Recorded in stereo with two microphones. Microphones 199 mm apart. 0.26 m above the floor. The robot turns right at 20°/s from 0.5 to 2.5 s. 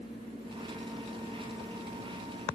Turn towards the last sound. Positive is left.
No sound to turn to.